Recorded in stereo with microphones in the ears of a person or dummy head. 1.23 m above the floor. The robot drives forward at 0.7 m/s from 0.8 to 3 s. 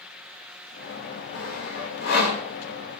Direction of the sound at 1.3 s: 70° left (ahead or behind).